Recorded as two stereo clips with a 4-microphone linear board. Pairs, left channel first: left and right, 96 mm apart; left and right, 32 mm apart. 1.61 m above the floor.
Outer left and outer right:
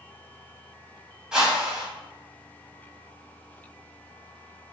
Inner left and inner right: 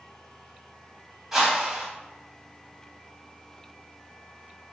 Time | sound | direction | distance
1.3 | a whoosh | 10° right (ahead or behind) | 1.6 m